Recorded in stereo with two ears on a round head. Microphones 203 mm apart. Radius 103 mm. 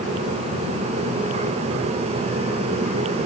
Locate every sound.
Only background noise.